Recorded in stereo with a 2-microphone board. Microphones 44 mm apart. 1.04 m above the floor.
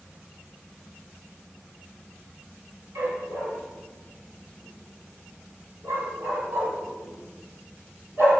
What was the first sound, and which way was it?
A dog barking, 75° right (ahead or behind).